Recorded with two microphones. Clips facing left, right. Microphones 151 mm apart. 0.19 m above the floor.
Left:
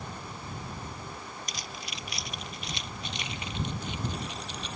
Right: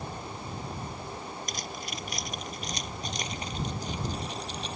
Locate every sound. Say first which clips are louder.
1.5 s keys jangling: right 4 dB; 50° right (ahead or behind); by 4.8 s 35° right (ahead or behind)